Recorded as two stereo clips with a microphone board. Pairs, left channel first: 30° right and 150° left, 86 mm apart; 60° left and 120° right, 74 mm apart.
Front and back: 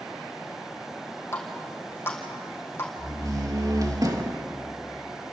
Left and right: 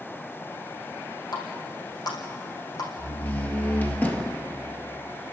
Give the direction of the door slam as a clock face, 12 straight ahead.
8 o'clock.